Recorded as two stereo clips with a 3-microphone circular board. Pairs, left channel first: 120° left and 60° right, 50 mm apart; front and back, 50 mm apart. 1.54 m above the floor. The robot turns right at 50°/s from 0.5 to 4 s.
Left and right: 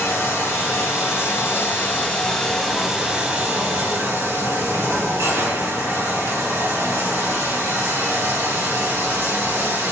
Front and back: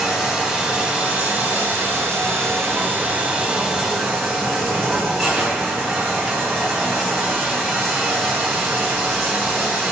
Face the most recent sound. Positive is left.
turn(degrees=-85)